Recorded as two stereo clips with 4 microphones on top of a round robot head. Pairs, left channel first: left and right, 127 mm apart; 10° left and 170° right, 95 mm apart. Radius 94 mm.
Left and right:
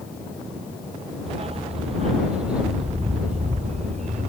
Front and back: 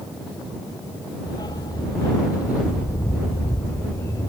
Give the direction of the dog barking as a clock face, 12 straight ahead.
2 o'clock.